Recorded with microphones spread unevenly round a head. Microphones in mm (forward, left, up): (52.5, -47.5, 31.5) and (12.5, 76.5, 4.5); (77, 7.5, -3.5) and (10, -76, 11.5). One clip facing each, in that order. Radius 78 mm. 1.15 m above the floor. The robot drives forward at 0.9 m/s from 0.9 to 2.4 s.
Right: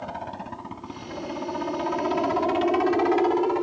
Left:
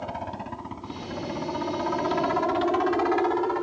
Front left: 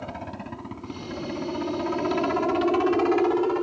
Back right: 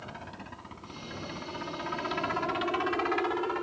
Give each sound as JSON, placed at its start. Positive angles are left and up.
{"t": 0.0, "sound": "a helicopter", "azimuth_deg": 25}